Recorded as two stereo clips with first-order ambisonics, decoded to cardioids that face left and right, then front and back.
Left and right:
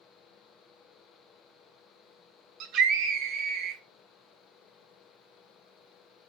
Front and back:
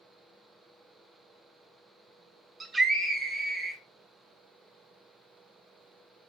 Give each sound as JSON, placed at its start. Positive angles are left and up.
{"t": 2.6, "sound": "a scream", "azimuth_deg": -105, "distance_m": 0.9}